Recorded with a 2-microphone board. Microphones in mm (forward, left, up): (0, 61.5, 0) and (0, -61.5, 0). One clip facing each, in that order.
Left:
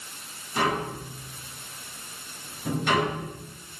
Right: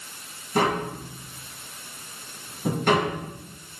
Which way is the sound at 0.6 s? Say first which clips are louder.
Right 3 dB; 50° right (ahead or behind).